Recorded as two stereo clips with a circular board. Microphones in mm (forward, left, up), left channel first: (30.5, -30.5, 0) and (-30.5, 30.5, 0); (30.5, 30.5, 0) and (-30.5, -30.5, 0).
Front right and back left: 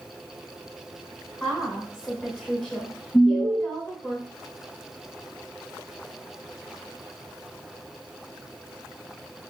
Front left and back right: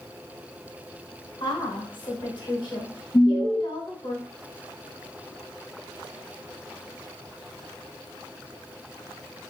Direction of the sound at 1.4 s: 35° left.